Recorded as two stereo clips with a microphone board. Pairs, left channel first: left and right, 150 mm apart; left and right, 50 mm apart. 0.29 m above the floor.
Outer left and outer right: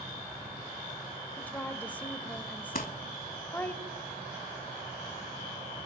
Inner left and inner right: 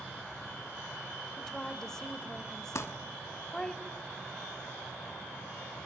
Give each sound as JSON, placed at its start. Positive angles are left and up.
{"t": 1.4, "sound": "a woman speaking", "side_deg": 10, "distance_m": 0.9}
{"t": 2.8, "sound": "crumpling", "side_deg": 60, "distance_m": 0.8}